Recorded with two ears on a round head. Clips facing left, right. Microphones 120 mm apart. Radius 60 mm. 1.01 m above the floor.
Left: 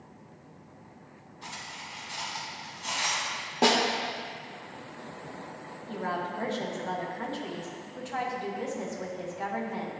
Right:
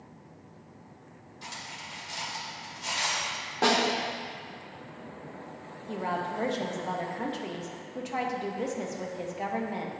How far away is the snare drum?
About 0.9 m.